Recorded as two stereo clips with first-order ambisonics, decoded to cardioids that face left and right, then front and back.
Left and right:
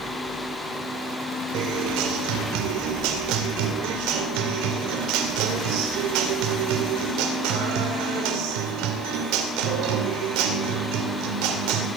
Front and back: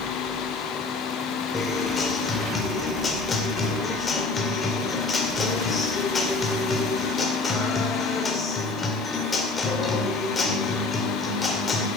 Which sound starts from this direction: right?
A guitar, at 1.5 s.